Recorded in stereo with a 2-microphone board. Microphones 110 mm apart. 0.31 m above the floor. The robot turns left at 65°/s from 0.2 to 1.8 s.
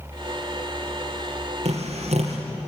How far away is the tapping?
About 5 m.